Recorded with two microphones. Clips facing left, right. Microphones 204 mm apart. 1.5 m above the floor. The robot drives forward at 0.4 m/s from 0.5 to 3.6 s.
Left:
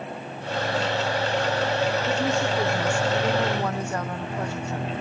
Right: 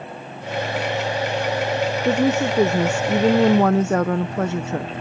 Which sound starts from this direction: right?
A woman speaking, at 2.0 s.